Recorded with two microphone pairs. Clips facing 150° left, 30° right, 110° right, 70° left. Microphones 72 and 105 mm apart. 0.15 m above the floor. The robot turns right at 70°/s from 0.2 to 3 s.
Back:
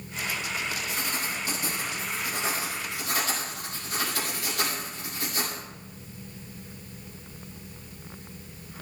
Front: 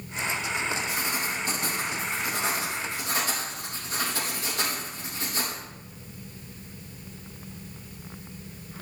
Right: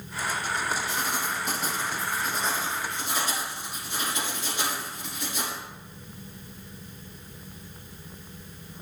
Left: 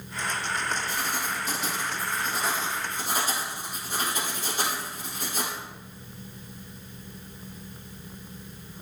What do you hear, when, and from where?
0.9 s writing: 125° right, 3.5 m; by 5.6 s 25° left, 3.5 m